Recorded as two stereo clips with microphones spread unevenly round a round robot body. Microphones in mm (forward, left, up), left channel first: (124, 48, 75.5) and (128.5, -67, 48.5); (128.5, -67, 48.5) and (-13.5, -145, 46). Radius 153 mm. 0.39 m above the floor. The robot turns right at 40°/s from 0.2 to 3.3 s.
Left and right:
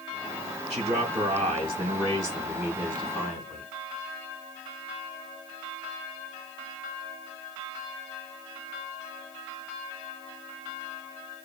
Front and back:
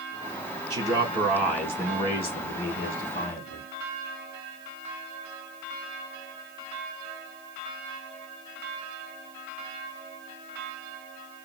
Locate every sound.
0.7 s a man speaking: 90° right, 4.5 m; by 3.7 s 15° left, 4.5 m